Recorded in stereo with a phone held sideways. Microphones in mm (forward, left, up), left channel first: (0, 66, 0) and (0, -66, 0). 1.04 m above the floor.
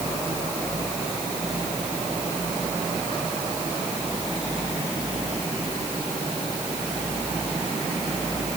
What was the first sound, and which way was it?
Only background noise.